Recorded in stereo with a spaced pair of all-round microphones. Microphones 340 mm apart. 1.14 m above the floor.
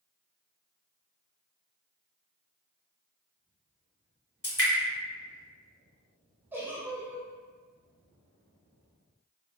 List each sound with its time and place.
4.4 s dripping: 45° left (ahead or behind), 1.2 m
6.5 s a giggle: 5° right (ahead or behind), 0.7 m